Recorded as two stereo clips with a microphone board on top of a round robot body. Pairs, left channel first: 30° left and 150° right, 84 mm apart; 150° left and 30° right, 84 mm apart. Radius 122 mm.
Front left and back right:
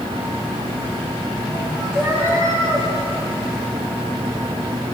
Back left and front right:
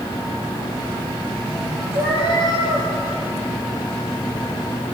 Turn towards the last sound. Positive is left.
turn(degrees=-30)